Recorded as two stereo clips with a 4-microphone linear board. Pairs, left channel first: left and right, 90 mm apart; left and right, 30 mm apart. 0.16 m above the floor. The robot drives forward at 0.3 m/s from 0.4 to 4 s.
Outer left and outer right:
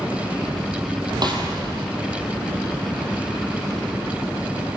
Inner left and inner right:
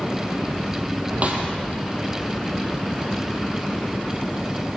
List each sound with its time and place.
1.2 s a snare drum: 50° right (ahead or behind), 3.5 m